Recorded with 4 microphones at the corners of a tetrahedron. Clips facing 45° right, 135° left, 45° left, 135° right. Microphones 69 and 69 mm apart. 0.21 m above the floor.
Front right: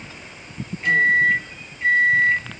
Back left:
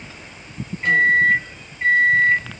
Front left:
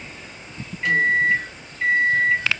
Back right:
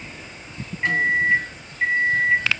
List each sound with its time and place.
0.8 s a microwave: straight behind, 1.7 m